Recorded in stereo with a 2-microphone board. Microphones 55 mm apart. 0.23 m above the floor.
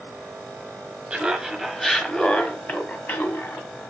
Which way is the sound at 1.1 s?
15° right (ahead or behind).